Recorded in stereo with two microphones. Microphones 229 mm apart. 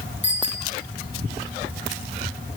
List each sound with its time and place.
0.2 s a bicycle bell: 60° left (ahead or behind), 6 m